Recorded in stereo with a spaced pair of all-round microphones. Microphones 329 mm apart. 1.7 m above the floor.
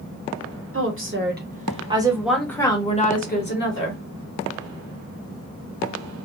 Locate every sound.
0.7 s a woman speaking: 45° right (ahead or behind), 1.2 m; by 4.0 s 45° left (ahead or behind), 1.3 m